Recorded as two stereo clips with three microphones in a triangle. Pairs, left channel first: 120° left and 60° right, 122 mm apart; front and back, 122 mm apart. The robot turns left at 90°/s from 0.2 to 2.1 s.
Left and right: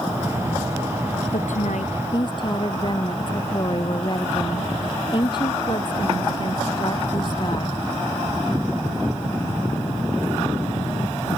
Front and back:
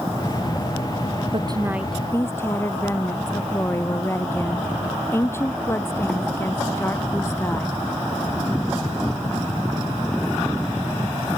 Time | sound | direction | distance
1.3 | a woman speaking | 140° left | ?